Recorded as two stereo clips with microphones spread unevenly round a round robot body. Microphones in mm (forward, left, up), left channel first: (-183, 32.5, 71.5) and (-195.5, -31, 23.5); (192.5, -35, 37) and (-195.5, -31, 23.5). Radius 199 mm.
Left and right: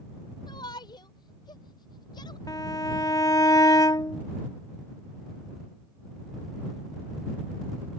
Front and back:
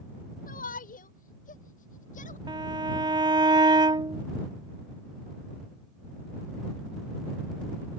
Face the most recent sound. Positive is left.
turn(degrees=100)